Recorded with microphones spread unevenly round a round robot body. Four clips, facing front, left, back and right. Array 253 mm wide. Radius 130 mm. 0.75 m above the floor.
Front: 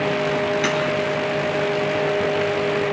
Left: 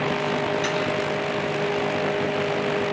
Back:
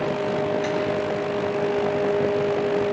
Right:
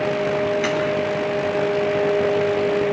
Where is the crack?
25° right, 10 m.